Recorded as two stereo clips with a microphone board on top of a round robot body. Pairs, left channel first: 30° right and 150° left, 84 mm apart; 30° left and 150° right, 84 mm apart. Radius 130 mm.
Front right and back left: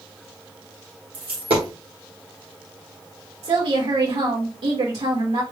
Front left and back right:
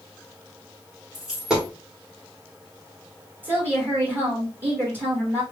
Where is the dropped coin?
130° left, 1.1 m.